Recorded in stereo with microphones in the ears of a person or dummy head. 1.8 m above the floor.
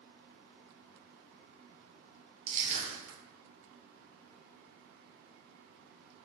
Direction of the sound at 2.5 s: 40° right (ahead or behind).